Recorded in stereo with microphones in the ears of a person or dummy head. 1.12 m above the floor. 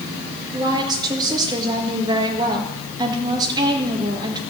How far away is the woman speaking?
About 1.7 m.